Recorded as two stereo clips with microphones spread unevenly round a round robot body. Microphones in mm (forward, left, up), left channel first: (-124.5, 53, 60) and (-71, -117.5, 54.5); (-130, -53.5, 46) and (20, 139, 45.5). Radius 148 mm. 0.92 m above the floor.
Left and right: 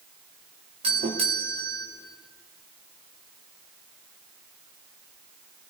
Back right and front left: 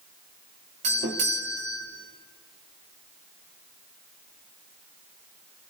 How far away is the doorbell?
About 3 m.